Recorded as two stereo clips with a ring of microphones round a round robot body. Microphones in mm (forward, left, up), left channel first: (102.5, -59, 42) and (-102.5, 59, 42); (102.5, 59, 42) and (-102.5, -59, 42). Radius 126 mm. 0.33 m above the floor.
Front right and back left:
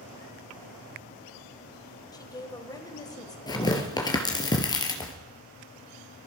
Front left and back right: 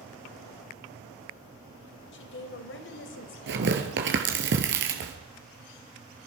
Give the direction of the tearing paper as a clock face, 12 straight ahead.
3 o'clock.